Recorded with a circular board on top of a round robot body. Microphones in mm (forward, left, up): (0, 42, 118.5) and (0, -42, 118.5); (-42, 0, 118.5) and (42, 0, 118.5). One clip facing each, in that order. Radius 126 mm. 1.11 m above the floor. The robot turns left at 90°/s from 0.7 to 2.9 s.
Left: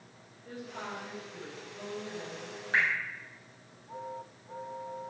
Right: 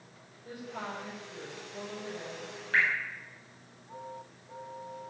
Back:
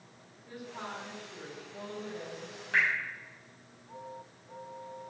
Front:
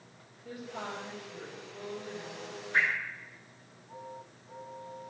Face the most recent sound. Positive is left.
turn(degrees=145)